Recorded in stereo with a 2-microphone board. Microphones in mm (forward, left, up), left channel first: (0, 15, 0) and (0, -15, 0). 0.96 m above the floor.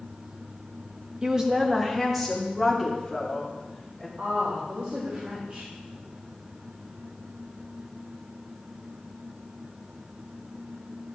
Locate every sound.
1.2 s a woman speaking: 25° right (ahead or behind), 1.0 m; by 4.1 s 5° left (ahead or behind), 4.5 m
4.2 s a woman speaking: 70° right (ahead or behind), 3.5 m